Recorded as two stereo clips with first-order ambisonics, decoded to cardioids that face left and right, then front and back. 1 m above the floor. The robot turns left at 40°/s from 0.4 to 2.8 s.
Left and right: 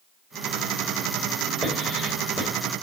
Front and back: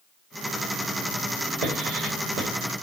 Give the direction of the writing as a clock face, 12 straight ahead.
6 o'clock.